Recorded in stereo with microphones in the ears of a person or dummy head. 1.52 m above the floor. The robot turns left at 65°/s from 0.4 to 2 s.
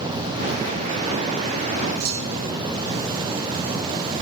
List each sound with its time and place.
2.0 s a clunk: 70° right (ahead or behind), 7 m